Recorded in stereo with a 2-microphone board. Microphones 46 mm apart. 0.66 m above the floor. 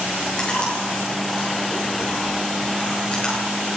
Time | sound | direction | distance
0.4 | chewing | 20° left (ahead or behind) | 10 m